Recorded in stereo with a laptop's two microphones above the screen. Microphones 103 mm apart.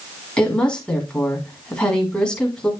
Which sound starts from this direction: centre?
A woman speaking, at 0.4 s.